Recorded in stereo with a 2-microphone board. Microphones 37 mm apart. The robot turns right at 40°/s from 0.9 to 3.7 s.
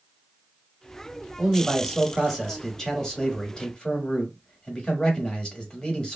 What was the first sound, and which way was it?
A man speaking, 10° right (ahead or behind).